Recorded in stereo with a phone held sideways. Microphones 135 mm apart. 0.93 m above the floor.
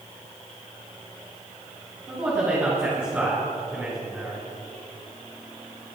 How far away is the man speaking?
About 8 m.